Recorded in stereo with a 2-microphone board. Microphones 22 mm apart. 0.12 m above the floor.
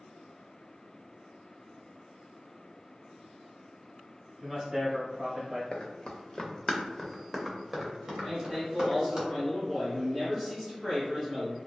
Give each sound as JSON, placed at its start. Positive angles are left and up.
{"t": 4.4, "sound": "a man speaking", "side_deg": -30, "distance_m": 1.7}
{"t": 5.7, "sound": "running footsteps", "side_deg": 60, "distance_m": 0.9}
{"t": 8.2, "sound": "a man speaking", "side_deg": -10, "distance_m": 1.4}